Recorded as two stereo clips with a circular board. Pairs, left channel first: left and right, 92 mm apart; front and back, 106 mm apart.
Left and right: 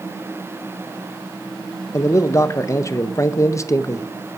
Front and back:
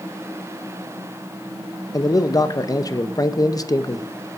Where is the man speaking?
45° left, 0.6 m.